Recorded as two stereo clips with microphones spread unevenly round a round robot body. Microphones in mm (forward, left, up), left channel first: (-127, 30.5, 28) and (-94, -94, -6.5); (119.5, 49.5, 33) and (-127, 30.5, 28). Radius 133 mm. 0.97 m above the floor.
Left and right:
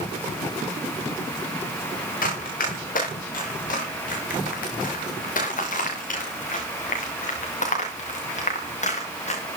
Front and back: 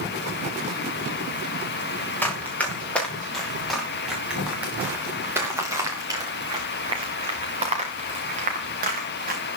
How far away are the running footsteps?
About 8 m.